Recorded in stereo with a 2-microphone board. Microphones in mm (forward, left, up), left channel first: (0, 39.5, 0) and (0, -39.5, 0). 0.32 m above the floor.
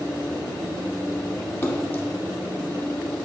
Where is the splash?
30° left (ahead or behind), 0.9 m.